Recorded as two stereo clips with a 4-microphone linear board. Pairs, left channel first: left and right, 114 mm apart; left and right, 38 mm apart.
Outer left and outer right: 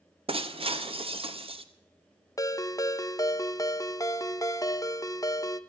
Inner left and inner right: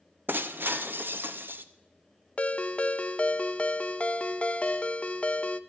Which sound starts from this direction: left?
A ringtone, at 2.4 s.